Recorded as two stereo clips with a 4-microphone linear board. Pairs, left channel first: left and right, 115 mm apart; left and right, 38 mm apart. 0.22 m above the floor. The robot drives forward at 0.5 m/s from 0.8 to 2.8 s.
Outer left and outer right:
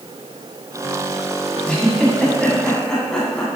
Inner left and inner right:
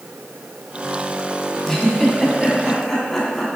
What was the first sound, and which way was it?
A giggle, 10° left (ahead or behind).